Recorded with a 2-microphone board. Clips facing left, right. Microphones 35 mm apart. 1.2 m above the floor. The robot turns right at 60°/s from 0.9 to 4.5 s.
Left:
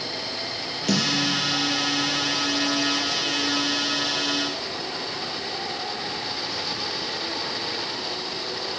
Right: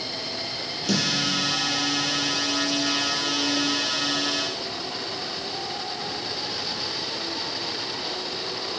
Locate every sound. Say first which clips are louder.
0.9 s a snare drum: left 2 dB; 75° left (ahead or behind), 4 m; by 1.4 s 60° left (ahead or behind), 4 m